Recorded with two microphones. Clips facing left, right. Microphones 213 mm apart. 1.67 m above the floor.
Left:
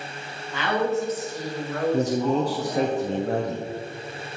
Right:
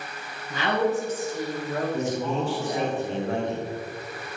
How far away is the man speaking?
About 0.8 m.